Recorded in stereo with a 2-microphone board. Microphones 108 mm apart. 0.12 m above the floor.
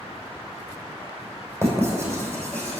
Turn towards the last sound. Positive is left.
turn(degrees=-25)  # may be behind; listen again after turning